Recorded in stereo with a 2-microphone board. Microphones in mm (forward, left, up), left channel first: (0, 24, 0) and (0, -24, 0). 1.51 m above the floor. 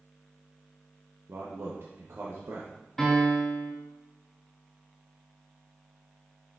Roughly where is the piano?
Centre.